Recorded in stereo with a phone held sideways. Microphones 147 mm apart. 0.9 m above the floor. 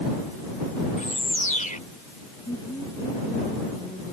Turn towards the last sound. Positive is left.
turn(degrees=30)  # may be behind; listen again after turning